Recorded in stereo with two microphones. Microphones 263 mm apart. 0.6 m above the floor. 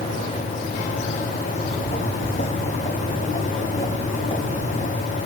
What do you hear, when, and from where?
1.5 s footsteps: 35° left (ahead or behind), 7.5 m; by 5.2 s 15° left (ahead or behind), 8.5 m